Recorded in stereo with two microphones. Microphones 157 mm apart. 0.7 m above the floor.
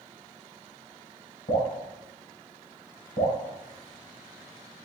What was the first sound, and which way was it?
Dripping, 75° left (ahead or behind).